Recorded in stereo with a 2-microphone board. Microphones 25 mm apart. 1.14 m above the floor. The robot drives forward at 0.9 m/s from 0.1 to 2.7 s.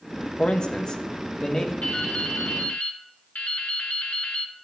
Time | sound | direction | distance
0.4 | a man speaking | 50° left (ahead or behind) | 1.2 m
1.8 | dripping | 50° left (ahead or behind) | 2 m